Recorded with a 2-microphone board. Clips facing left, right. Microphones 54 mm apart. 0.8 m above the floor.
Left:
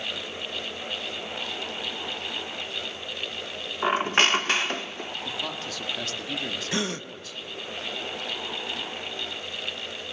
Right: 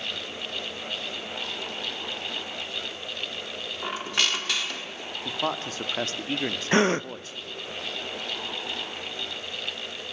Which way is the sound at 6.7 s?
40° right (ahead or behind).